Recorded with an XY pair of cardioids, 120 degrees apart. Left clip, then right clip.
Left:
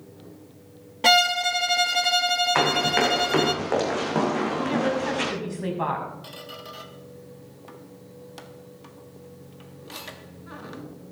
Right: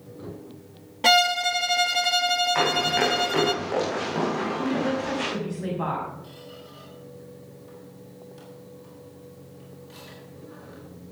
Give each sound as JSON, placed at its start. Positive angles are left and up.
{"t": 1.0, "sound": "a violin", "azimuth_deg": 5, "distance_m": 0.5}
{"t": 2.5, "sound": "running footsteps", "azimuth_deg": 40, "distance_m": 4.5}
{"t": 4.6, "sound": "a woman speaking", "azimuth_deg": 25, "distance_m": 6.0}
{"t": 6.2, "sound": "a squeak", "azimuth_deg": 70, "distance_m": 1.5}